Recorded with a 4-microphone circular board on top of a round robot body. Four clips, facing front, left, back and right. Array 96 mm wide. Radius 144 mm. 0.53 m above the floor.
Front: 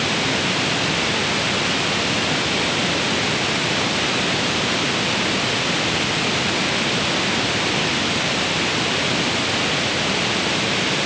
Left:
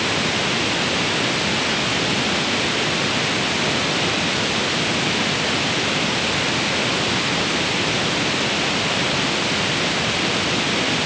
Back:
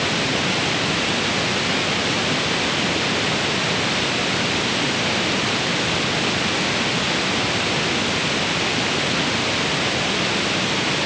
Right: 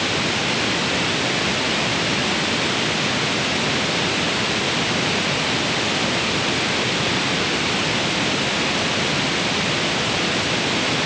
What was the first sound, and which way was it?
Only background noise.